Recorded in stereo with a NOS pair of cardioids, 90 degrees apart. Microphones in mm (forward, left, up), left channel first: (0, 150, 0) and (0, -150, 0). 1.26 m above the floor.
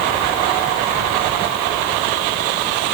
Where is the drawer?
No drawer in this recording.